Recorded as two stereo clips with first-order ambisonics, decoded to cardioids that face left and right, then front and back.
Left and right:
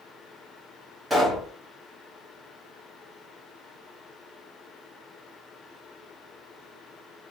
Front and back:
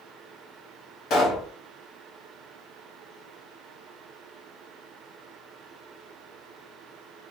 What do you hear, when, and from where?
1.1 s a pop: straight ahead, 1.4 m